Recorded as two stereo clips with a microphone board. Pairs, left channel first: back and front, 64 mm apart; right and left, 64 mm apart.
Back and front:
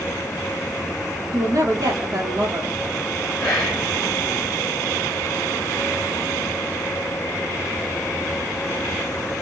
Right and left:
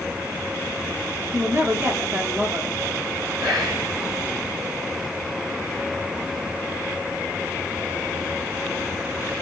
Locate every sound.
1.3 s a woman speaking: 30° left, 1.0 m
3.4 s whispering: 100° left, 2.5 m